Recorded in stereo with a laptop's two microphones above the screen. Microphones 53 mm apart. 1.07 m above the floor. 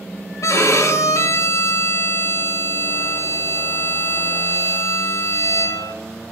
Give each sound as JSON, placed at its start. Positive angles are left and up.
{"t": 0.4, "sound": "a violin", "side_deg": 75, "distance_m": 1.2}